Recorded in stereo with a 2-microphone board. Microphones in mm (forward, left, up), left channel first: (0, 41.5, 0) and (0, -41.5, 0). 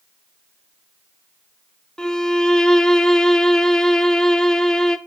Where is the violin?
10° left (ahead or behind), 1.0 m.